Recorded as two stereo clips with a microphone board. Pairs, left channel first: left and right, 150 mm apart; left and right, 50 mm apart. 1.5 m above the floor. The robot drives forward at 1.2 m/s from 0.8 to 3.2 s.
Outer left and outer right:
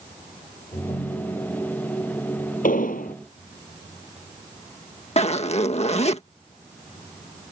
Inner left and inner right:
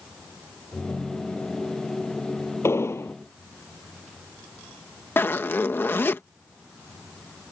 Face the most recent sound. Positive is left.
turn(degrees=45)  # may be behind; listen again after turning